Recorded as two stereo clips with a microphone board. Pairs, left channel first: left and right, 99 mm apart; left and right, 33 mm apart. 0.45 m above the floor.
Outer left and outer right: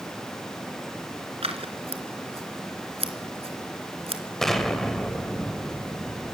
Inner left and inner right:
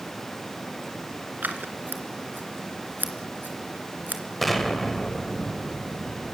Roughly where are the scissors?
Right.